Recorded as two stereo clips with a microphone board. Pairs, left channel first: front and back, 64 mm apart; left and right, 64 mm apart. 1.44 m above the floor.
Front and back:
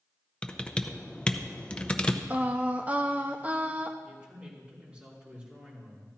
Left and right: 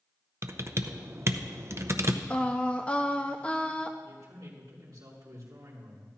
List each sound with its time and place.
0.4 s typing on a keyboard: 70° right, 0.7 m
2.3 s singing: 145° left, 0.8 m
4.0 s a man speaking: 110° right, 3.5 m